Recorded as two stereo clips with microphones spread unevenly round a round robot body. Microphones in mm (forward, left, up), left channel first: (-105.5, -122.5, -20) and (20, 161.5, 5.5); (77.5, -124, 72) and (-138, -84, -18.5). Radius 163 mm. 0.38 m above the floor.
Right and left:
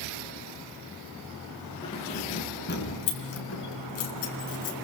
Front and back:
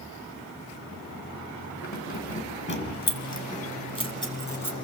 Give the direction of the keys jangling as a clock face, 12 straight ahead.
1 o'clock.